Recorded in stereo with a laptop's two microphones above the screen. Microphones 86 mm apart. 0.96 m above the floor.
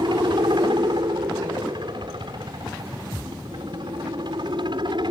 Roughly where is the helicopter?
Right.